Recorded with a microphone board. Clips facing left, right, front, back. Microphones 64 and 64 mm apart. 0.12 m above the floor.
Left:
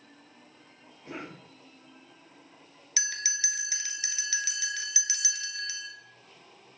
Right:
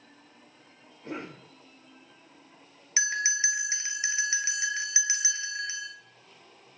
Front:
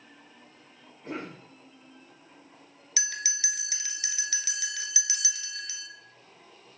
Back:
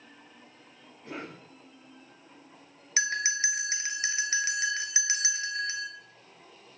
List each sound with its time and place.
1.0 s a cough: 55° right, 2.5 m
3.0 s a bell: 140° right, 0.8 m